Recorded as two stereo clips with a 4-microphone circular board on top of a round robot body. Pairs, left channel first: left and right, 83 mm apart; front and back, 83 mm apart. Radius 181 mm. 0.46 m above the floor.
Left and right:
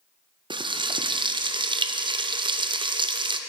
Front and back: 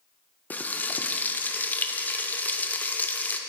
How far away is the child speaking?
No child speaking in this recording.